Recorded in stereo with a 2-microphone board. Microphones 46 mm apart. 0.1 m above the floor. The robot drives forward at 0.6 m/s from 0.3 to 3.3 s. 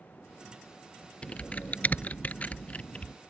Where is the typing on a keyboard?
25° left (ahead or behind); by 3.1 s 20° left (ahead or behind).